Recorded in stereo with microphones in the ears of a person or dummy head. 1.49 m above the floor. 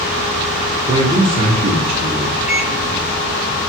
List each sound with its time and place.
0.9 s a man speaking: 30° right (ahead or behind), 0.6 m
2.5 s a microwave: 5° right (ahead or behind), 1.9 m